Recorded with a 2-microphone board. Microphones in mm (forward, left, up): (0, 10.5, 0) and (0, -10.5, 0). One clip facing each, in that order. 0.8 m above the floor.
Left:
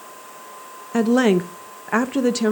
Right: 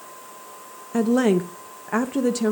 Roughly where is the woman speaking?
Left.